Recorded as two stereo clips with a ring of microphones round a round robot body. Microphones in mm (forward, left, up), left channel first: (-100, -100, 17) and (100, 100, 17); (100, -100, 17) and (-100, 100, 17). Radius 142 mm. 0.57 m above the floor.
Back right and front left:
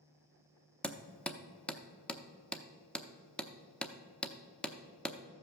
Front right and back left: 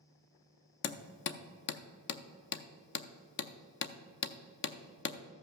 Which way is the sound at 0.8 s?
50° right.